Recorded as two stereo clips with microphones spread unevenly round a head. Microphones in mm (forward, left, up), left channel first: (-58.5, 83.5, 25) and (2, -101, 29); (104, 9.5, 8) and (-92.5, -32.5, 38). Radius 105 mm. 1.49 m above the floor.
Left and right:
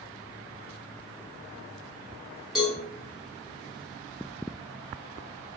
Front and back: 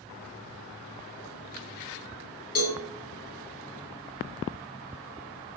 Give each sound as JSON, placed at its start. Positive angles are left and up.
{"t": 2.5, "sound": "a cowbell", "azimuth_deg": 15, "distance_m": 1.0}